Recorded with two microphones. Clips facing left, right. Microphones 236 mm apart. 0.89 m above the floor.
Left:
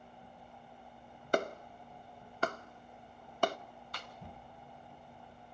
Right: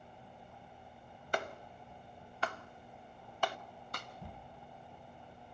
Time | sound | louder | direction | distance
1.3 | a clap | left 7 dB | 45° left (ahead or behind) | 0.7 m
3.9 | a snare drum | right 2 dB | 50° right (ahead or behind) | 1.4 m